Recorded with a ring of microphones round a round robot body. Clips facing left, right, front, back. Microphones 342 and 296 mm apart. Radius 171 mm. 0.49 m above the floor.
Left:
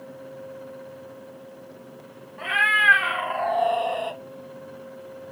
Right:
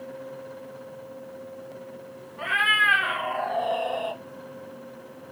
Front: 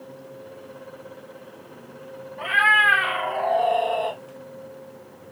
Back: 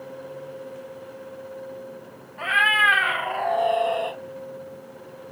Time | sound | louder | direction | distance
2.4 | a cat meowing | left 3 dB, even | 150° left | 2 m